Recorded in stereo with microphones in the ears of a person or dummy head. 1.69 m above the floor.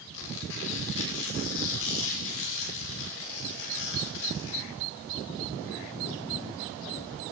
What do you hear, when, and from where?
0.1 s tearing paper: 75° left (ahead or behind), 6 m